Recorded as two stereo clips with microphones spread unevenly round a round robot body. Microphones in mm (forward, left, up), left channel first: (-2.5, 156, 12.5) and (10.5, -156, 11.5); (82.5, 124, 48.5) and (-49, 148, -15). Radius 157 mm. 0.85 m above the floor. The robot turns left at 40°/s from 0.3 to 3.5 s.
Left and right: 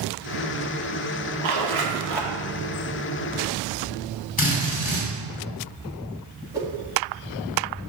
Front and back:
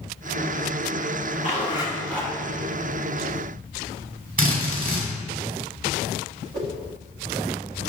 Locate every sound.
1.4 s a zipper: 60° right, 1.4 m; by 2.3 s 95° right, 1.4 m
4.4 s a drill: 160° left, 3 m
6.5 s a whoosh: 165° right, 1.4 m